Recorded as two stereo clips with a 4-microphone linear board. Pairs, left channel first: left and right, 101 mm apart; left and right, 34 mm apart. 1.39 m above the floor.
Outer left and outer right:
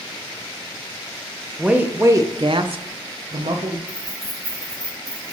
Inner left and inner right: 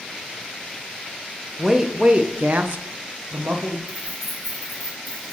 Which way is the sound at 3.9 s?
5° left (ahead or behind).